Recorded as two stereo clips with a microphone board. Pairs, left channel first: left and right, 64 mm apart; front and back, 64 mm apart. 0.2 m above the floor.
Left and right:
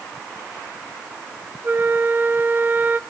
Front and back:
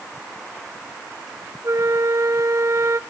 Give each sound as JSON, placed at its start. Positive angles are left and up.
{"t": 1.6, "sound": "a flute", "azimuth_deg": -145, "distance_m": 0.8}